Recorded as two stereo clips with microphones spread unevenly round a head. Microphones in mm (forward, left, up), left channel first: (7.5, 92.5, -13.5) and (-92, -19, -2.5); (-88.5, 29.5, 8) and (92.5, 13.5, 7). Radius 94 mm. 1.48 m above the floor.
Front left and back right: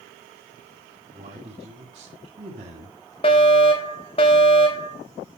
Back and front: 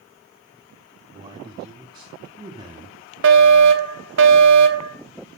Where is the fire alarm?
10° right, 2 m.